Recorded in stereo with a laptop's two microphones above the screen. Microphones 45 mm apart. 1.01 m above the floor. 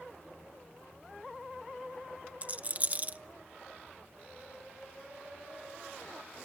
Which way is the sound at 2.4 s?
30° right (ahead or behind).